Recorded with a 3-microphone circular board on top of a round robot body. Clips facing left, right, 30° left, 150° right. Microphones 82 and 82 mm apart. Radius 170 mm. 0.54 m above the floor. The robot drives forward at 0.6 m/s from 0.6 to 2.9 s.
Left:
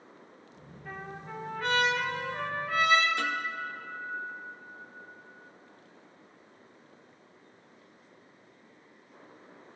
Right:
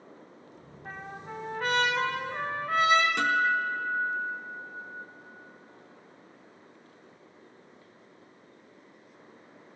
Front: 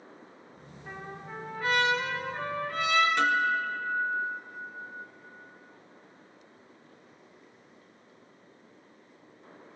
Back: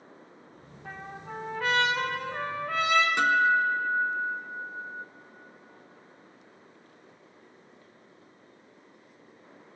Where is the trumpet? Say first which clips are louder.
Right 1 dB, back 1 dB; 130° right, 2.5 m; by 3.1 s 145° right, 3.5 m.